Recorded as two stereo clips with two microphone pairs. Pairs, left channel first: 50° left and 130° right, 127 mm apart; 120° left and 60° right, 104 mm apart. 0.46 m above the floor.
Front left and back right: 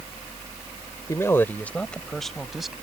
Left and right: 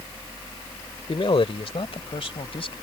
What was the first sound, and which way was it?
A man speaking, 105° left.